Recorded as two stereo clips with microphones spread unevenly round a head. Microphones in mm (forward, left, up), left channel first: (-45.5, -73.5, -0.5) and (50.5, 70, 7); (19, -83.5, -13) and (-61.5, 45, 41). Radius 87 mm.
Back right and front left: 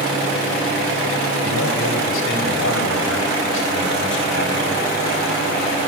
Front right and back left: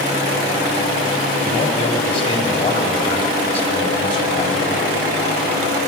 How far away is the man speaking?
About 3.5 m.